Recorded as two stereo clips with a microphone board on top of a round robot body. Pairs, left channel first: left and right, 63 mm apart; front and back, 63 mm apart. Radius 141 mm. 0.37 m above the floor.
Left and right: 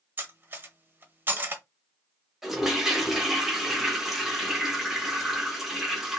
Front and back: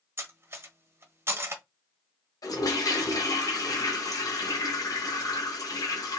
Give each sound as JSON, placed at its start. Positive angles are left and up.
{"t": 0.2, "sound": "cutlery clinking", "azimuth_deg": -140, "distance_m": 0.9}
{"t": 2.4, "sound": "a toilet flushing", "azimuth_deg": -5, "distance_m": 1.0}